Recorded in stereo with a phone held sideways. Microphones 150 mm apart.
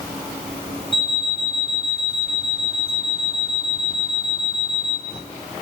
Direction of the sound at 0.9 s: 35° right (ahead or behind).